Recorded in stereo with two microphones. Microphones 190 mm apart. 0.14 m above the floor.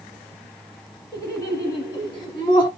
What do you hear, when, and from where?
1.1 s laughter: 20° left (ahead or behind), 1.4 m; by 2.7 s 25° left (ahead or behind), 1.1 m